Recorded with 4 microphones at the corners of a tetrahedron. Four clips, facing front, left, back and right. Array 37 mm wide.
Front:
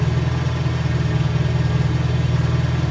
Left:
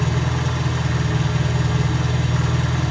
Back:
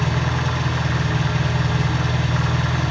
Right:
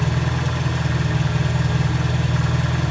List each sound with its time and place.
0.0 s an engine running: 175° right, 0.9 m